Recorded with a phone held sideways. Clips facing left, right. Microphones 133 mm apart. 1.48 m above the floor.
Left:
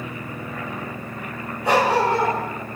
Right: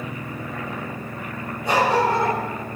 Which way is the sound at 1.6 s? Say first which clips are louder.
Left 1 dB; 80° left.